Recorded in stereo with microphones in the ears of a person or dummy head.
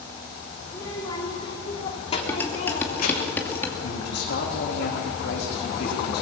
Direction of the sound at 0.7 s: 20° left (ahead or behind).